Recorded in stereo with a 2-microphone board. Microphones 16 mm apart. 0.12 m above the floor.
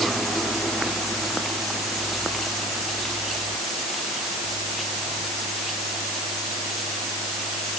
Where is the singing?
No singing in this recording.